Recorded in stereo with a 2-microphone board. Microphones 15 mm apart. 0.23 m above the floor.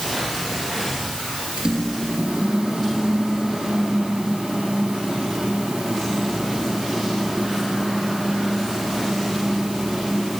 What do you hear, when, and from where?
1.6 s a microwave: 75° right (ahead or behind), 4 m